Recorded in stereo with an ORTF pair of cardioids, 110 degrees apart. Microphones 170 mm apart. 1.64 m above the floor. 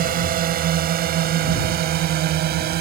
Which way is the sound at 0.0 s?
60° right.